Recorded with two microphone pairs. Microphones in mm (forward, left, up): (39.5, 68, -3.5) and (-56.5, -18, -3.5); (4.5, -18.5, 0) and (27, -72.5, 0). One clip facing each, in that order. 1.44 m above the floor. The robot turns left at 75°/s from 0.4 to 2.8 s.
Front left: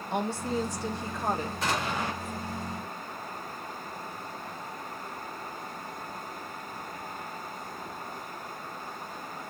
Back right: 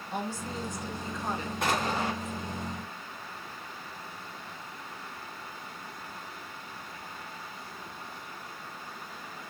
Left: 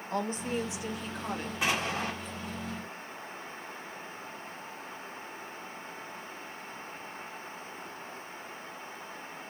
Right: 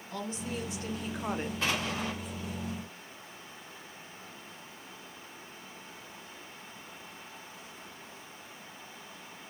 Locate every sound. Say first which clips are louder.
0.1 s a woman speaking: front left 5 dB, left 5 dB; 65° left, 0.9 m; by 1.5 s 15° right, 0.9 m
1.6 s an explosion: back right 4 dB, left 4 dB; 170° right, 1.6 m; by 2.1 s 150° left, 1.6 m